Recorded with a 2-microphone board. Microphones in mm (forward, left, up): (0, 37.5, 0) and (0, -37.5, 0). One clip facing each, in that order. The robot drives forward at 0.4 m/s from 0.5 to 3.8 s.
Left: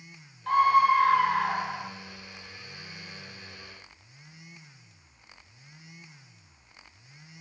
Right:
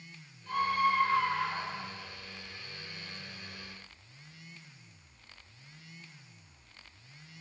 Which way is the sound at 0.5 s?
65° left (ahead or behind).